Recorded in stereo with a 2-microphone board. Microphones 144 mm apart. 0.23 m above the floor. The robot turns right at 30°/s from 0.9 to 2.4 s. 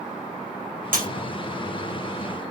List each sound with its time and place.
0.9 s breaking glass: 65° right (ahead or behind), 3.5 m